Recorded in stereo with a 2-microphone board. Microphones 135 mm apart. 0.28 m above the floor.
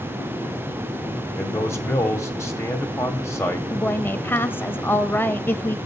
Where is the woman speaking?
15° left (ahead or behind), 0.9 m.